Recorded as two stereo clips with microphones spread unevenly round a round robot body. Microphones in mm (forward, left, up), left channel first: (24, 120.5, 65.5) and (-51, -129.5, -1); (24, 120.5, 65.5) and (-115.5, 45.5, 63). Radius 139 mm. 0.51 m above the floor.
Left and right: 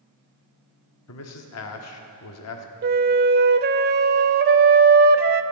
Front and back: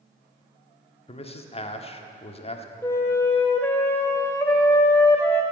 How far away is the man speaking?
About 1.4 m.